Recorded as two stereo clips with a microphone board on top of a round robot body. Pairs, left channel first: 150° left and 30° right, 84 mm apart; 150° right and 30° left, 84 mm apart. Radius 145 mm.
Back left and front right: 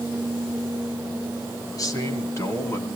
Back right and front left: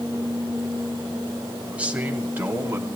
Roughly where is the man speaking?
Left.